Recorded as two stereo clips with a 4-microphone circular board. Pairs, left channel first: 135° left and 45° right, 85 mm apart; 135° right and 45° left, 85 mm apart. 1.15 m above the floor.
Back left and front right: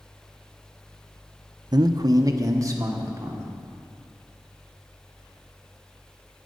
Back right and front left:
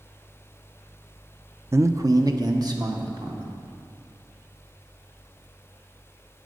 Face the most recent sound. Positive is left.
turn(degrees=10)